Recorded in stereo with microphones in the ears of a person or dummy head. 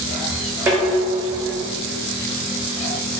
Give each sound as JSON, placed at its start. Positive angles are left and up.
{"t": 0.7, "sound": "dishes clattering", "side_deg": -10, "distance_m": 0.5}